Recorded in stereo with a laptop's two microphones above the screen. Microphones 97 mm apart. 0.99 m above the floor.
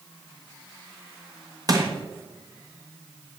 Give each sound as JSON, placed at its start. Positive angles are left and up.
{"t": 1.7, "sound": "crushing", "side_deg": -40, "distance_m": 1.3}